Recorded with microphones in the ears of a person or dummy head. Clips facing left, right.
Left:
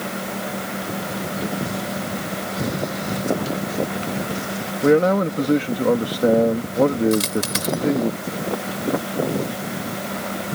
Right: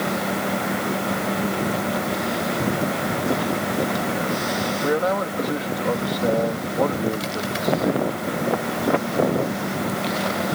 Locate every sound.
4.8 s a man speaking: 45° left (ahead or behind)
7.1 s a dropped coin: 70° left (ahead or behind)